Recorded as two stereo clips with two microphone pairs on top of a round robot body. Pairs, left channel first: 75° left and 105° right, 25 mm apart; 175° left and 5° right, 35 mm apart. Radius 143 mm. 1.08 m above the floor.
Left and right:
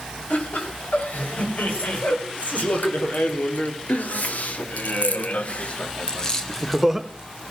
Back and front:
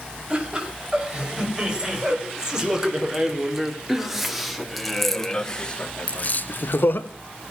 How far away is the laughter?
About 7 m.